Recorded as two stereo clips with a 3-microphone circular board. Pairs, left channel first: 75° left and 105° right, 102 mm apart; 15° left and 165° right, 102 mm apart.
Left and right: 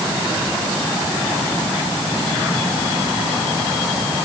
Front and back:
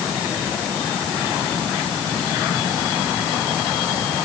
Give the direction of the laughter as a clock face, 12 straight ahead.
I don't hear laughter.